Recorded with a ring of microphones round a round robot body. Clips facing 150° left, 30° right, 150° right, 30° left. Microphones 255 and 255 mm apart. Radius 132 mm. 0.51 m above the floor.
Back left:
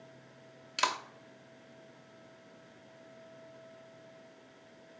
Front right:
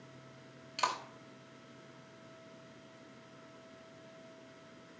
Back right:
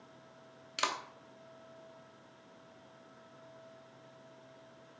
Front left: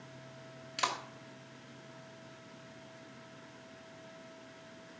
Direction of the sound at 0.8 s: 145° left.